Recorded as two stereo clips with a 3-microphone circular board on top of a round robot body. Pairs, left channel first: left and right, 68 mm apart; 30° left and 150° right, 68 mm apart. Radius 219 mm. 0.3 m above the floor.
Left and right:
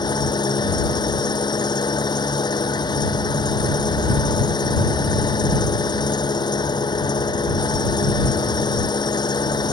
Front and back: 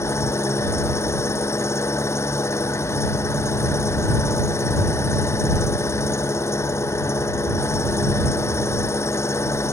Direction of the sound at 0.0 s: 80° left.